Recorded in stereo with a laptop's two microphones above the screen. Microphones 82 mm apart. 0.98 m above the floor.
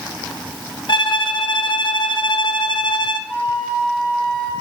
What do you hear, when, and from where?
0.9 s a violin: 65° left (ahead or behind), 0.8 m
3.3 s a flute: 70° left (ahead or behind), 1.7 m